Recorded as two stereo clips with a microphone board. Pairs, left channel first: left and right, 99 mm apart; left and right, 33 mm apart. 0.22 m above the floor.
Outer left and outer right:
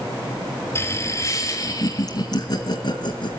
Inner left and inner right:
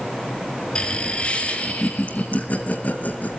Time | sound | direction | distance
0.8 | laughter | 30° left (ahead or behind) | 2.5 m